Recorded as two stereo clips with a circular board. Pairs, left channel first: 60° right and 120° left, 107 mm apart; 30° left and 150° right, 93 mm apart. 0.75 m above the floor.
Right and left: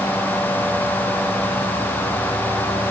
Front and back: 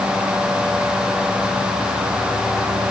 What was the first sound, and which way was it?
Only background noise.